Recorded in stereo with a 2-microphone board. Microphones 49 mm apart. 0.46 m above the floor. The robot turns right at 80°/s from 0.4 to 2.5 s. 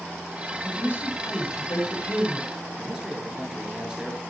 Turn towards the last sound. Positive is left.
turn(degrees=-15)  # may be behind; listen again after turning